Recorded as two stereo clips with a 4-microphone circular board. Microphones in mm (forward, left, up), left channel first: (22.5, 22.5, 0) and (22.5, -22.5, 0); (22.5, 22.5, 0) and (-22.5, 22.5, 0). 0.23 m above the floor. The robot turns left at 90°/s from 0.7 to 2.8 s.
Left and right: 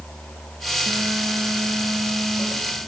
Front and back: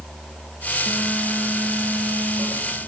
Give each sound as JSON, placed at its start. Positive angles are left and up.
{"t": 0.9, "sound": "a phone buzzing", "azimuth_deg": -40, "distance_m": 7.0}